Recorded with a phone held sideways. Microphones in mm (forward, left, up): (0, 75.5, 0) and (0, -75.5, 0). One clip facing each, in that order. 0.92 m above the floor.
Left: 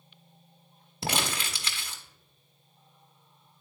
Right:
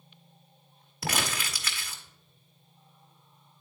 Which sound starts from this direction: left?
Crumpling, at 1.0 s.